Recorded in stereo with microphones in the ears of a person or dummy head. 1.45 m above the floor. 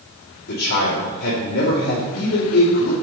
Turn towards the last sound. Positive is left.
turn(degrees=45)  # may be behind; listen again after turning